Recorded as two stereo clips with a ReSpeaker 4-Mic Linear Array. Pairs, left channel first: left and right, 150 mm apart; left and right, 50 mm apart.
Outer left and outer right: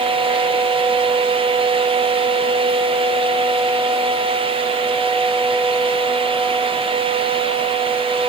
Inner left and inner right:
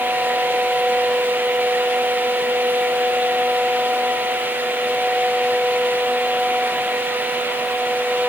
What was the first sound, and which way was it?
Only background noise.